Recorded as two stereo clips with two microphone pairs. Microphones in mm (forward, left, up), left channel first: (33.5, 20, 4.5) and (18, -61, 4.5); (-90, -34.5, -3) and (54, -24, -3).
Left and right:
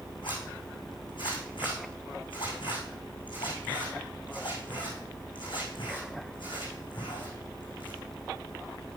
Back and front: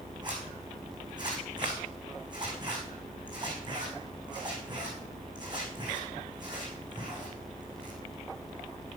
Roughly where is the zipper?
Ahead left.